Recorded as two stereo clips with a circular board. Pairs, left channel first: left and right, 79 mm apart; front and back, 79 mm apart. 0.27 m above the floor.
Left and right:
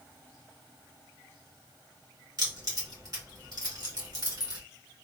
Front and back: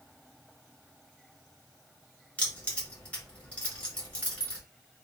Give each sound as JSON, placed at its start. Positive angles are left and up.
{"t": 2.4, "sound": "keys jangling", "azimuth_deg": -70, "distance_m": 1.7}